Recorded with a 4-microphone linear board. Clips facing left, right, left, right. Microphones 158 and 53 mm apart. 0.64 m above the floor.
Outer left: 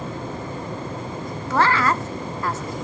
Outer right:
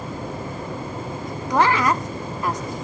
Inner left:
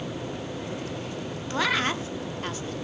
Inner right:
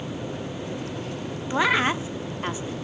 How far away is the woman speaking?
About 1.0 m.